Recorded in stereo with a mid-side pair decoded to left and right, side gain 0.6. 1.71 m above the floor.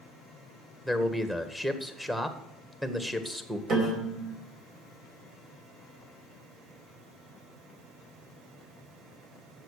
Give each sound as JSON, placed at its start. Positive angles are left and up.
{"t": 0.8, "sound": "a man speaking", "azimuth_deg": -5, "distance_m": 1.8}
{"t": 3.7, "sound": "a piano", "azimuth_deg": -50, "distance_m": 3.5}